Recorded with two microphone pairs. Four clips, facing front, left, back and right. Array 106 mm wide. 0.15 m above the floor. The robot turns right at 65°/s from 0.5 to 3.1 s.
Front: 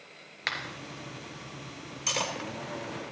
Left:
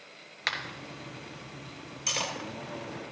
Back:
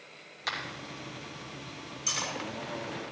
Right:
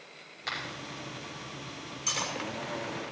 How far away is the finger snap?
About 2.5 m.